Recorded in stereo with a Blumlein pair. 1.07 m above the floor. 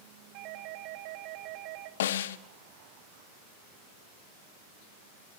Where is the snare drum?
60° left, 1.2 m.